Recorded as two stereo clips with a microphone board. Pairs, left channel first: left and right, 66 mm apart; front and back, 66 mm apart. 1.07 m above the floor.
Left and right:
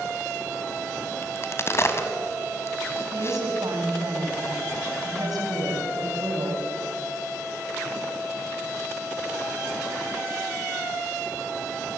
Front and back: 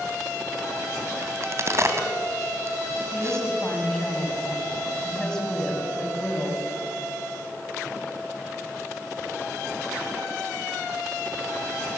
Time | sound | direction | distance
1.2 | a crack | 135° left | 3 m
3.1 | a woman speaking | 80° right | 6.5 m